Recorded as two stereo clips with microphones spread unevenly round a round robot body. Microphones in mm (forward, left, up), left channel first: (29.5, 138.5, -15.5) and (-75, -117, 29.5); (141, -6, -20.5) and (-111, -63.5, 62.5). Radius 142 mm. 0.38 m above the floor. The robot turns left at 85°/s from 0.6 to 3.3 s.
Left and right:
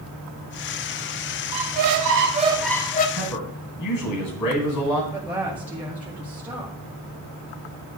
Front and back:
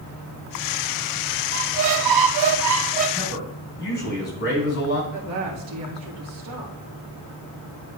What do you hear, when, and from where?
1.5 s a squeak: 110° right, 0.6 m; by 3.1 s 120° left, 0.6 m
3.2 s a man speaking: 70° left, 3 m; by 5.0 s 55° left, 3 m
5.1 s a woman speaking: 155° left, 1.6 m